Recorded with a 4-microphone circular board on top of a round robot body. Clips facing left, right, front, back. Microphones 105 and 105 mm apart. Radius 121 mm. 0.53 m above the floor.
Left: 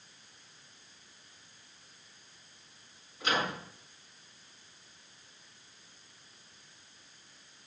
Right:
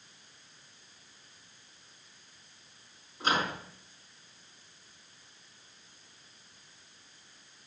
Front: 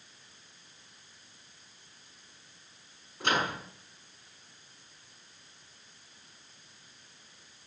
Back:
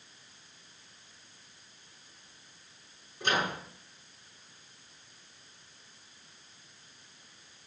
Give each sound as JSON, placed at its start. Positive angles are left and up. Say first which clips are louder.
{"t": 3.2, "sound": "a microwave", "louder": "right 2 dB, front 1 dB", "azimuth_deg": -30, "distance_m": 5.5}